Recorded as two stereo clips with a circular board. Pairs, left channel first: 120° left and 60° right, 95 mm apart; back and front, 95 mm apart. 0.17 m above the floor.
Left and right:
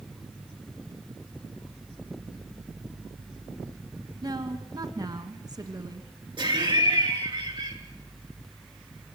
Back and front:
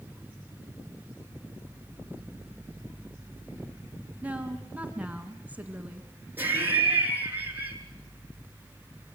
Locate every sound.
4.2 s a woman speaking: 70° right, 1.9 m
6.4 s laughter: 65° right, 3 m